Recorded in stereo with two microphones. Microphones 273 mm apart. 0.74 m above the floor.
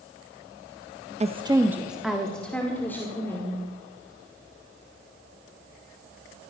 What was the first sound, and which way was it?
A woman speaking, 25° right (ahead or behind).